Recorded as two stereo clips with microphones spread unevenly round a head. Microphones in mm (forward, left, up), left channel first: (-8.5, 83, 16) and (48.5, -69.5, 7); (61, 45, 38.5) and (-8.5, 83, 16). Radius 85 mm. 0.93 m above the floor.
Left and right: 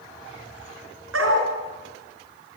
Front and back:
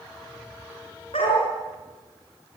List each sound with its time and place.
1.1 s a dog barking: 80° right, 6 m